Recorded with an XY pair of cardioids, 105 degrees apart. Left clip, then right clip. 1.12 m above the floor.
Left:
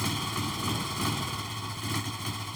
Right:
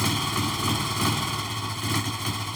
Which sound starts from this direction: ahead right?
A motorcycle, at 0.0 s.